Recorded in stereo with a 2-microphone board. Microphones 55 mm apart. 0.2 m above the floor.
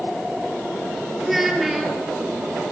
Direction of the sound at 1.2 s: 5° right (ahead or behind).